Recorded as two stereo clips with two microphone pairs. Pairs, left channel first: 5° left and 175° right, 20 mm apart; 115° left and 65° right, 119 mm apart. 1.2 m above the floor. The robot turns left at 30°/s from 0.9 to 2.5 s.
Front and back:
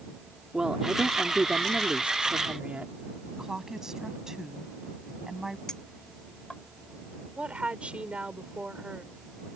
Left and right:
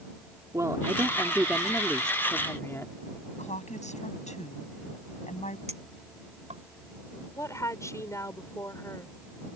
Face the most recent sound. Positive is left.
turn(degrees=175)